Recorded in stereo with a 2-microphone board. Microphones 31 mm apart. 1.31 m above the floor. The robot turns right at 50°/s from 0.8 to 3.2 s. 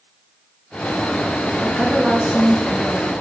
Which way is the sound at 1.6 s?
35° right.